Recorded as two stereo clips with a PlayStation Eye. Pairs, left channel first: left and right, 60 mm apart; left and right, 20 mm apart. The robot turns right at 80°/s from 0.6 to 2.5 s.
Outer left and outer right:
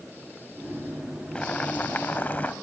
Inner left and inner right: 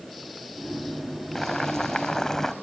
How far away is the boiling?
About 0.6 m.